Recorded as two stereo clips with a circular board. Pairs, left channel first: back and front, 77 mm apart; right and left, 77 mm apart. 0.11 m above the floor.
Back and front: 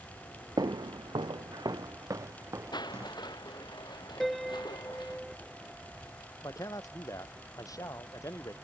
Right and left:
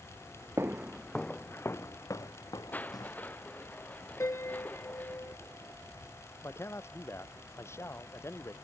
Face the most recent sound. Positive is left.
turn(degrees=-145)